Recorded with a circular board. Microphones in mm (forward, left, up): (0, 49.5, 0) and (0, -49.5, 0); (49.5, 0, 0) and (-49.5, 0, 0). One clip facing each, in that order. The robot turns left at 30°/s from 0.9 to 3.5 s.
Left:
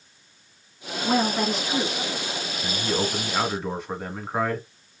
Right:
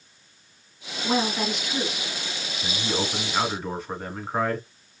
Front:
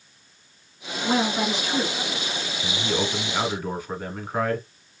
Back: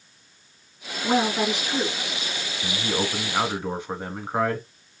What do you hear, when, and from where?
1.0 s a woman speaking: 120° left, 1.8 m; by 2.5 s 80° left, 1.8 m
2.6 s a man speaking: 155° right, 1.2 m; by 4.7 s straight behind, 1.2 m